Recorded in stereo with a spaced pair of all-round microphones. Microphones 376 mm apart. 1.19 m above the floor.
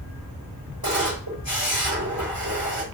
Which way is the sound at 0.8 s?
65° right (ahead or behind).